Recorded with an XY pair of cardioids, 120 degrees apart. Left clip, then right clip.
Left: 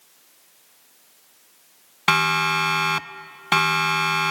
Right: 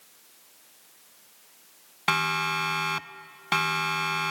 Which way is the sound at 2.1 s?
35° left.